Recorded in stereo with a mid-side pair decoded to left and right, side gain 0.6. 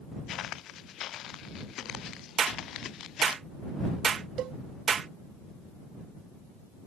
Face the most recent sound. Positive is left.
turn(degrees=-55)